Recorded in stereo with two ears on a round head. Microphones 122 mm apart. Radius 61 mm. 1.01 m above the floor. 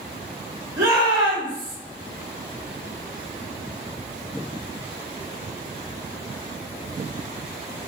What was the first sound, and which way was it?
A shout, 25° right (ahead or behind).